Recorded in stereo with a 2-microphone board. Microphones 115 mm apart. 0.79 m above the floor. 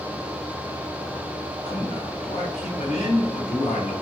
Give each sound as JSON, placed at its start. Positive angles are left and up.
{"t": 1.6, "sound": "a man speaking", "side_deg": 80, "distance_m": 4.0}